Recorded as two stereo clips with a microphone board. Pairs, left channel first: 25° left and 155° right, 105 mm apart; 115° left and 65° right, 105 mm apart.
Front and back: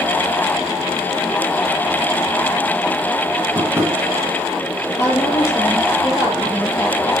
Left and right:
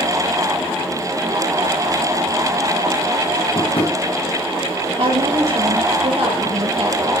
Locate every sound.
3.5 s tapping: 140° left, 4.5 m
5.0 s a woman speaking: 40° right, 6 m